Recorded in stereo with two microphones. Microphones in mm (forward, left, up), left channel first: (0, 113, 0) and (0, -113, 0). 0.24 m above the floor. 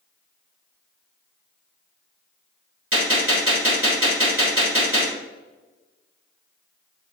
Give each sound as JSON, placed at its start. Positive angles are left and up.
{"t": 2.9, "sound": "a gunshot", "side_deg": -70, "distance_m": 3.0}